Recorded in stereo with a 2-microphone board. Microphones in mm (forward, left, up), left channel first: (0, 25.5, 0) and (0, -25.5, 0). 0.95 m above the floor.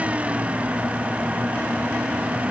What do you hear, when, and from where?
Only background noise.